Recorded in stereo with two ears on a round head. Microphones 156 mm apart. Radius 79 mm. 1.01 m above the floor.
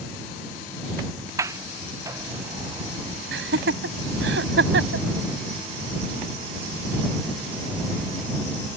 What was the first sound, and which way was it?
A sliding door, 20° right (ahead or behind).